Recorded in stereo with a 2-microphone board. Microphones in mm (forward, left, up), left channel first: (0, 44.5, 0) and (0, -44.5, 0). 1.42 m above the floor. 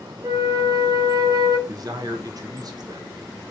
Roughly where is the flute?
Right.